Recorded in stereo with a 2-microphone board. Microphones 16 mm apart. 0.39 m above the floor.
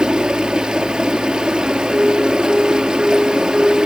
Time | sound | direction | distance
0.0 | running water | 80° right | 1.4 m
1.6 | a piano | 55° right (ahead or behind) | 5 m